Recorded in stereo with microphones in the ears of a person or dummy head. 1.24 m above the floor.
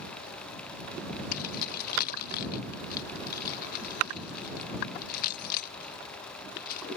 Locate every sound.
1.3 s keys jangling: 50° left (ahead or behind)